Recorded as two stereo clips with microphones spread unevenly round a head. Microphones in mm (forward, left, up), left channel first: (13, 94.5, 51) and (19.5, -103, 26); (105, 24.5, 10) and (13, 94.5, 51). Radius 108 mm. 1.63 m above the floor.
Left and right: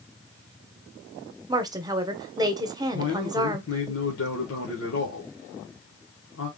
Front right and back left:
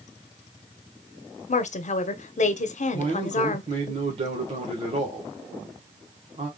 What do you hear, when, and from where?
1.5 s a woman speaking: 15° right, 0.8 m
2.9 s a man speaking: 115° left, 1.2 m